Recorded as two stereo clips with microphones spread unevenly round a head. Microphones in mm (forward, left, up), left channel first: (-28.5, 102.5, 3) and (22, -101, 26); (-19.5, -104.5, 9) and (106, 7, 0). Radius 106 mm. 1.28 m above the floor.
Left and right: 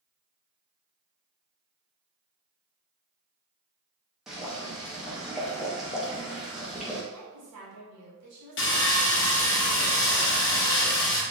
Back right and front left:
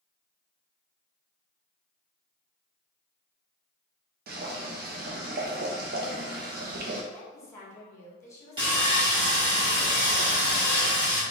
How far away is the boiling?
About 0.8 m.